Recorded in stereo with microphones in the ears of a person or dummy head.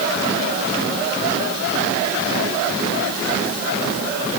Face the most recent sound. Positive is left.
No sound to turn to.